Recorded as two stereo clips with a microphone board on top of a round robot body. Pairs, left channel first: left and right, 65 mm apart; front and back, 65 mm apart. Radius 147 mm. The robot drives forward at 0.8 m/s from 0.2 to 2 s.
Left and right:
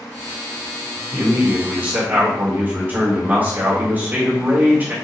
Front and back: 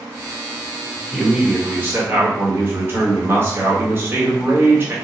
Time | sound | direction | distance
1.1 | a man speaking | 95° right | 1.3 m